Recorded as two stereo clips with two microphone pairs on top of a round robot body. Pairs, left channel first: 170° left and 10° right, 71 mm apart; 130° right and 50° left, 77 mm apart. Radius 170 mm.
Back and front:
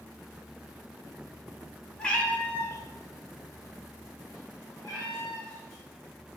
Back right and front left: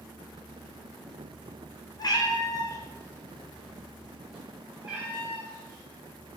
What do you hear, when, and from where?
2.0 s a cat meowing: 115° right, 0.8 m; by 5.9 s 115° left, 1.8 m